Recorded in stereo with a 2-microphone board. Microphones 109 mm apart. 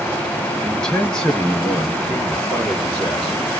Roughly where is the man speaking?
Centre.